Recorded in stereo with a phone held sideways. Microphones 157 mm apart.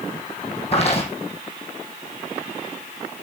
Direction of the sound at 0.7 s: 40° left (ahead or behind).